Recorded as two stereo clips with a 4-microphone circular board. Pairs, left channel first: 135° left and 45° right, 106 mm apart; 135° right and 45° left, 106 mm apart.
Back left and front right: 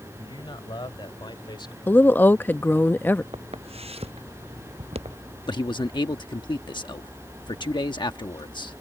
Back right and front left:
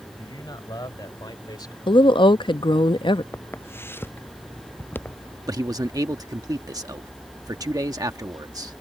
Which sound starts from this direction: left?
A man speaking, at 5.5 s.